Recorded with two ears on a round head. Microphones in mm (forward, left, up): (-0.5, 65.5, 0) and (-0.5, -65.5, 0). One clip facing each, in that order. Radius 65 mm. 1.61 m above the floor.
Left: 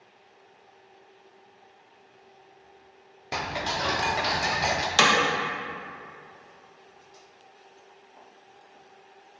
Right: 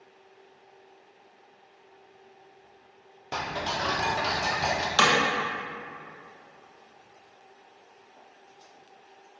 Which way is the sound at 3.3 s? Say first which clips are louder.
Left 1 dB; 5° left (ahead or behind).